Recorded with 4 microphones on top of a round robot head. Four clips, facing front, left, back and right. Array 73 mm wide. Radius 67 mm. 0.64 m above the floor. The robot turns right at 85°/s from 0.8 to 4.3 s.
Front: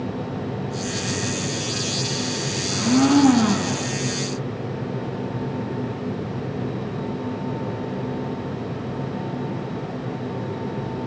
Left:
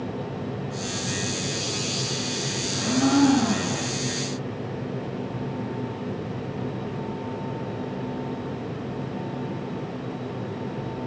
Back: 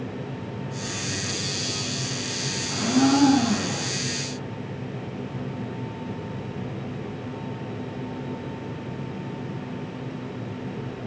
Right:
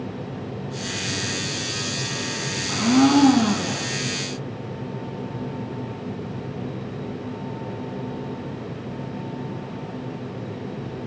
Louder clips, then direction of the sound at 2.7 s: Right 5 dB, front 3 dB; 100° right.